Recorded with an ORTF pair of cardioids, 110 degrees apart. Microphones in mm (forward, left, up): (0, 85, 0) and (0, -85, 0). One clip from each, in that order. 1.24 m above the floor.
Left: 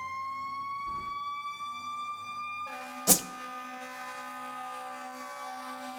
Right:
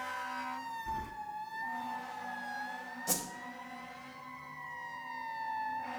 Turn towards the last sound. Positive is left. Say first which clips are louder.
# left 10 dB
turn(degrees=50)